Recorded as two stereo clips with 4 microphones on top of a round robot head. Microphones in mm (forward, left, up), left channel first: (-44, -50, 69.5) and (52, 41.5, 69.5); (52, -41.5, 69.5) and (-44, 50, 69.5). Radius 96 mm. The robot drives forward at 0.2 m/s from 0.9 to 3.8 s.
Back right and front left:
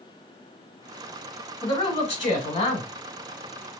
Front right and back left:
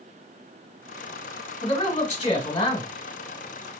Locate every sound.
1.6 s a man speaking: 85° right, 1.4 m; by 2.9 s 100° right, 1.4 m